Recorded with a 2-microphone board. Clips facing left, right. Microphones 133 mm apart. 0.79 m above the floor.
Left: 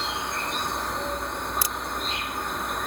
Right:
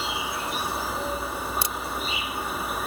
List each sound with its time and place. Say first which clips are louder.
0.0 s an insect: right 1 dB; 5° right (ahead or behind)
1.6 s a crack: right 1 dB; 25° right (ahead or behind)